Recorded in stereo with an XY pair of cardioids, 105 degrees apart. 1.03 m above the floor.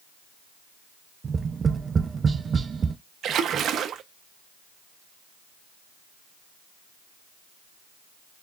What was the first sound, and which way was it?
Tapping, 40° right.